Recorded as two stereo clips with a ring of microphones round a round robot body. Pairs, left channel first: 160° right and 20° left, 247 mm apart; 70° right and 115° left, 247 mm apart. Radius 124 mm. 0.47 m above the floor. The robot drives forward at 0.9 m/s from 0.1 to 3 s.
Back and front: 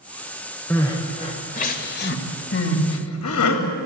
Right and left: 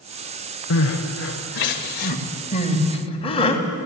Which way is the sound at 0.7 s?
80° right.